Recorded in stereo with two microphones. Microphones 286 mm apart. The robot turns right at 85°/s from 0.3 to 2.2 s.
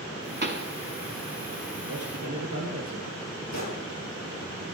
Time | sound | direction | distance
0.4 | a pop | 35° right (ahead or behind) | 0.8 m
1.9 | a man speaking | 45° right (ahead or behind) | 4.5 m
3.5 | a gunshot | 65° left (ahead or behind) | 3 m